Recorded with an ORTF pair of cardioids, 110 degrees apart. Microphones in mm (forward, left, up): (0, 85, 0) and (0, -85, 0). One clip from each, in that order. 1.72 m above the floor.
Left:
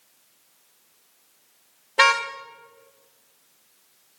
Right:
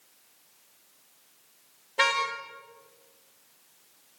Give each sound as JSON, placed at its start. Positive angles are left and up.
{"t": 2.0, "sound": "a car horn", "azimuth_deg": 40, "distance_m": 3.5}